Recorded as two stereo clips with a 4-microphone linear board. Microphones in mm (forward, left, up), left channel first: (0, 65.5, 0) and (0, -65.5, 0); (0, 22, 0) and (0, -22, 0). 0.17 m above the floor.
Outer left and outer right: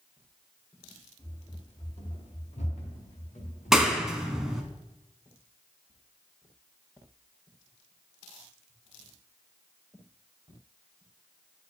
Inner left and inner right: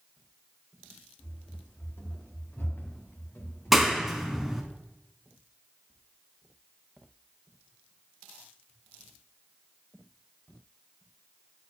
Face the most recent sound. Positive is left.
turn(degrees=-5)  # may be behind; listen again after turning